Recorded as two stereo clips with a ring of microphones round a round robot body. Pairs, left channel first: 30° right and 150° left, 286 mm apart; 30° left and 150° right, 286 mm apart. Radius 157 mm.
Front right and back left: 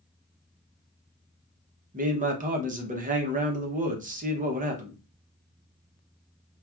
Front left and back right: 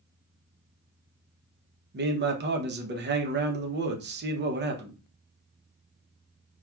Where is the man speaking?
165° right, 0.8 m.